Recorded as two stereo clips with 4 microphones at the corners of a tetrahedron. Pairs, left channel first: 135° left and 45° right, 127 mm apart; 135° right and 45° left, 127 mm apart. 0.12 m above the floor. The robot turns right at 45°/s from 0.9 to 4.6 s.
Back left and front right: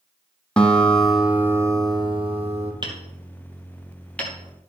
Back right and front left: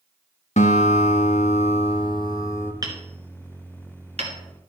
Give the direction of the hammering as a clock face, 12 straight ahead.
12 o'clock.